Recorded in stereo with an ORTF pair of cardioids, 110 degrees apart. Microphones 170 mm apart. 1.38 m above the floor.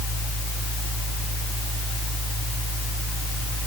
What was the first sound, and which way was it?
A fan, straight ahead.